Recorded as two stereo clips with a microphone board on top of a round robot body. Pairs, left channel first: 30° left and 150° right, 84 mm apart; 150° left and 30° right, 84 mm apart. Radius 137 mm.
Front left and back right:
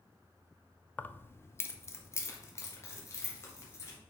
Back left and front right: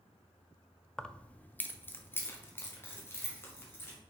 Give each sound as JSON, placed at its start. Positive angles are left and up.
{"t": 1.0, "sound": "keys jangling", "azimuth_deg": 75, "distance_m": 0.6}